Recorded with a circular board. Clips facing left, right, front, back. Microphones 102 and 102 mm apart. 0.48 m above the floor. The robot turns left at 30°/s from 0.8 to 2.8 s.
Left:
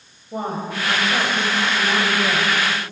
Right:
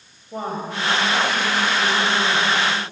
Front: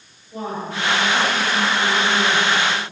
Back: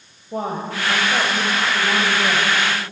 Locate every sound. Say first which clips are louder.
0.3 s a woman speaking: left 1 dB, back 2 dB; 175° left, 2 m; by 2.6 s 120° left, 2 m